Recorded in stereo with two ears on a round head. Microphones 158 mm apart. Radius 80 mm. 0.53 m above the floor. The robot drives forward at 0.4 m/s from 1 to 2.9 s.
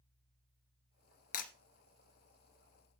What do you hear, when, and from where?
1.3 s breaking glass: 45° left (ahead or behind), 2.5 m; by 1.5 s 50° left (ahead or behind), 2.5 m